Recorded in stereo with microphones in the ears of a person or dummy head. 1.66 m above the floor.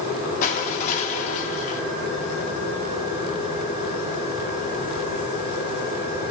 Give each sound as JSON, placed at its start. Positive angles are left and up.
{"t": 0.4, "sound": "crushing", "side_deg": 50, "distance_m": 3.0}